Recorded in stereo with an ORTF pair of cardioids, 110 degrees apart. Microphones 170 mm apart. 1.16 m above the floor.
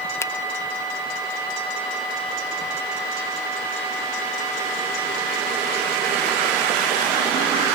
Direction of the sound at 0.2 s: 15° left.